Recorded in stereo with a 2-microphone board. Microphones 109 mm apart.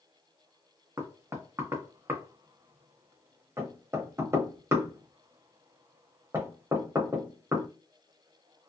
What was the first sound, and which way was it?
Knocking, 25° right (ahead or behind).